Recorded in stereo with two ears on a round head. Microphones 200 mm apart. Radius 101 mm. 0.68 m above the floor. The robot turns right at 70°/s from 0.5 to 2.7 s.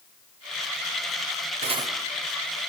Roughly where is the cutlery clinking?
Right.